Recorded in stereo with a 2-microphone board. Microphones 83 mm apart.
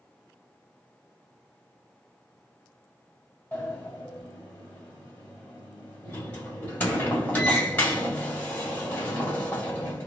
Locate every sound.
3.5 s a sliding door: 15° left (ahead or behind), 1.7 m